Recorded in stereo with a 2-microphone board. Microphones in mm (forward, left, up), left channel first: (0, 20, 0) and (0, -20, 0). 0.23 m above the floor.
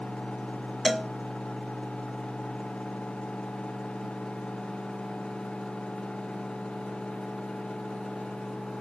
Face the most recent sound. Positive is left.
turn(degrees=0)  # may be behind; listen again after turning